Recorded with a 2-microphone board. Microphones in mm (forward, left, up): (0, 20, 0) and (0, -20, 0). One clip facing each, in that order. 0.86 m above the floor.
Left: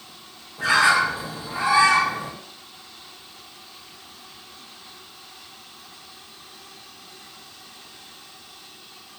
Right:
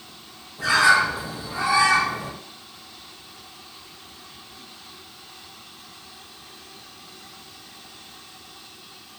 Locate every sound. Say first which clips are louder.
0.6 s a bird: right 1 dB; 35° left (ahead or behind), 0.7 m